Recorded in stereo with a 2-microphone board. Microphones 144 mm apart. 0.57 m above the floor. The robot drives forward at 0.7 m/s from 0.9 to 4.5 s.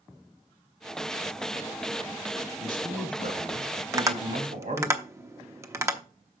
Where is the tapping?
20° right (ahead or behind), 0.7 m.